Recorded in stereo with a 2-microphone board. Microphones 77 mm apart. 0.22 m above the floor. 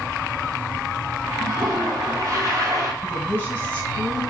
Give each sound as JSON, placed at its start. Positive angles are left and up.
{"t": 1.4, "sound": "a toilet flushing", "side_deg": -45, "distance_m": 1.8}
{"t": 3.0, "sound": "a woman speaking", "side_deg": 35, "distance_m": 2.5}